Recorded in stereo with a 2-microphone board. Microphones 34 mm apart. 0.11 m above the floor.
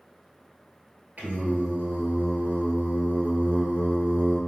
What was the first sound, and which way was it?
Singing, 55° right (ahead or behind).